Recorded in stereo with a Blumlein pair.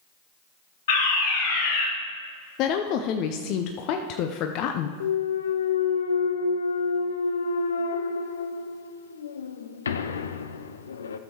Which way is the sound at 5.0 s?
70° left.